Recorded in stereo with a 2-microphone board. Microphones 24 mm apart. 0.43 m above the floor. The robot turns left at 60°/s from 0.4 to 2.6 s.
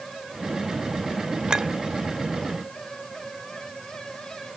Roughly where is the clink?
Right.